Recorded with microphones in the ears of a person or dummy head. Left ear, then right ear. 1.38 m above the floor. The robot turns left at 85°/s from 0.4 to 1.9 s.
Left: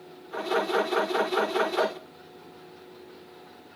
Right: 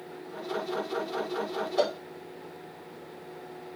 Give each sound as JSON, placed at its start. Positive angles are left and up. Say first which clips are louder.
{"t": 1.8, "sound": "a cowbell", "louder": "even", "side_deg": -50, "distance_m": 2.0}